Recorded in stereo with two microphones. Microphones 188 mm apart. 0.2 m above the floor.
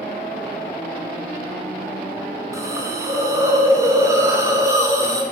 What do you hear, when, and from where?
2.5 s a hiss: 20° right (ahead or behind), 1.8 m